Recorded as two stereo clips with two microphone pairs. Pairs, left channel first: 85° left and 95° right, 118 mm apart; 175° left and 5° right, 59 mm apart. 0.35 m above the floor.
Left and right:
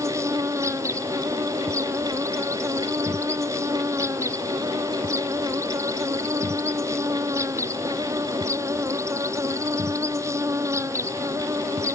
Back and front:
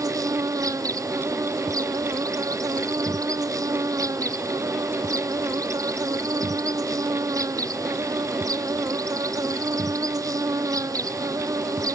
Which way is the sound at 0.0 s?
30° right.